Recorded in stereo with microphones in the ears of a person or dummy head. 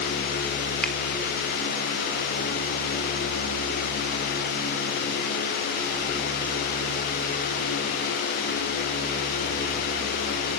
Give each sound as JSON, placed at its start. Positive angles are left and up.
{"t": 0.8, "sound": "a finger snap", "side_deg": 10, "distance_m": 3.5}